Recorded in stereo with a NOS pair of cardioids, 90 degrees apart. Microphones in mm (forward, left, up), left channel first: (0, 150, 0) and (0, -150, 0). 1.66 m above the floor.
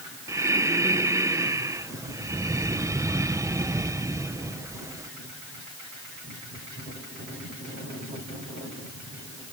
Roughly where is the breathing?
Ahead.